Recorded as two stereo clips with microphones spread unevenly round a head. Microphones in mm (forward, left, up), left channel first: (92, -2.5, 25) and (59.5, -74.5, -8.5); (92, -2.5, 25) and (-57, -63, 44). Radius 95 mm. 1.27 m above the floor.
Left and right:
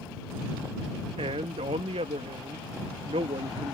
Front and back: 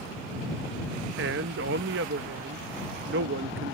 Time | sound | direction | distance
1.2 | a man speaking | 150° right | ?